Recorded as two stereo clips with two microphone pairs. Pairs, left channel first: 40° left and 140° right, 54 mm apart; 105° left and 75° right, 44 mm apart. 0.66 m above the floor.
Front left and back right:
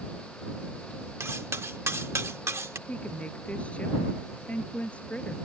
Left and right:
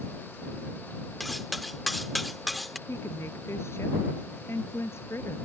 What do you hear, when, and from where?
1.2 s cutlery clinking: 165° right
2.9 s a woman speaking: 105° left